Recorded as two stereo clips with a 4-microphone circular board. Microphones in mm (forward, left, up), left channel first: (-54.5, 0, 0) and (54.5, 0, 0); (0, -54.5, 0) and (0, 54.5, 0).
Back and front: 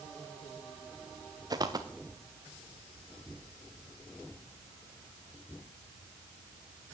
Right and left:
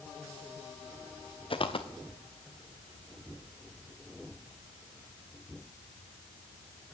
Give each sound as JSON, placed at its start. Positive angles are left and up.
{"t": 1.5, "sound": "footsteps", "azimuth_deg": -55, "distance_m": 1.7}